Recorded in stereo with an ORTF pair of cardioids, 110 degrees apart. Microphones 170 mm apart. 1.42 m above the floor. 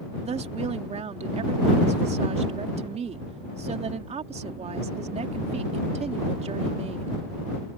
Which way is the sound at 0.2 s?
40° right.